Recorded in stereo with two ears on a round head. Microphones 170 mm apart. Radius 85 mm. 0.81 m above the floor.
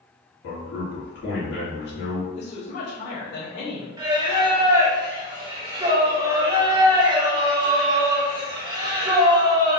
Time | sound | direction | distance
0.4 | a man speaking | 60° left (ahead or behind) | 1.9 m
2.4 | a woman speaking | 60° left (ahead or behind) | 2.0 m
4.0 | singing | 20° right (ahead or behind) | 0.8 m